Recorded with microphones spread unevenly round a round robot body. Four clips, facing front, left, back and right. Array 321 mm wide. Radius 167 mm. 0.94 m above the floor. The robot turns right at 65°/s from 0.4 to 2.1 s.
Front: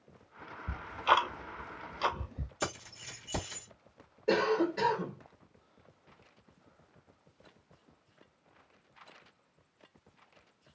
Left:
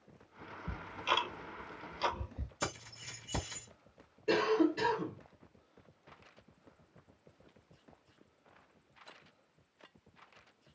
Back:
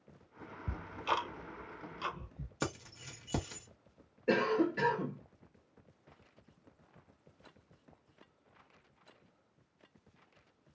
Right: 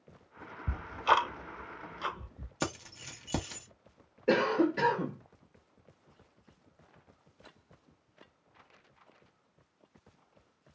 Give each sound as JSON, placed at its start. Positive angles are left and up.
{"t": 0.7, "sound": "ticking", "azimuth_deg": -65, "distance_m": 0.6}
{"t": 2.6, "sound": "keys jangling", "azimuth_deg": -80, "distance_m": 1.4}
{"t": 4.3, "sound": "a cough", "azimuth_deg": -60, "distance_m": 1.4}